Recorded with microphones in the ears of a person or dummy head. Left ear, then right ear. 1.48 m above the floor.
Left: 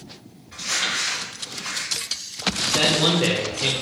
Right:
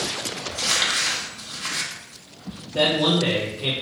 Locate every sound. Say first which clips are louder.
0.5 s crumpling: right 2 dB; 45° right (ahead or behind), 1.0 m
2.7 s a man speaking: right 1 dB; 45° left (ahead or behind), 0.8 m